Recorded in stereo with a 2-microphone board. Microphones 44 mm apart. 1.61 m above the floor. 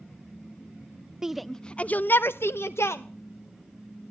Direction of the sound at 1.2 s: 15° right (ahead or behind).